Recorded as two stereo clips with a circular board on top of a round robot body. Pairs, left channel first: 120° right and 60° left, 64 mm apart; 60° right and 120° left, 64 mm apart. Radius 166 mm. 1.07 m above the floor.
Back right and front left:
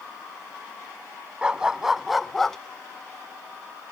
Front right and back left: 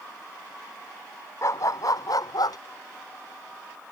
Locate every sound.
1.4 s a dog barking: 15° right; by 2.6 s 35° right